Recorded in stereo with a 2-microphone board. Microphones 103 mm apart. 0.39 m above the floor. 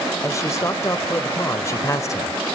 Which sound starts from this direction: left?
A man speaking, at 0.2 s.